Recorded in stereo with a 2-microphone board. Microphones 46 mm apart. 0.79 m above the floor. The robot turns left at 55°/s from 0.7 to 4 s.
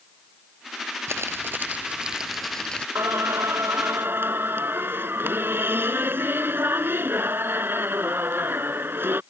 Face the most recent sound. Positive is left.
turn(degrees=-125)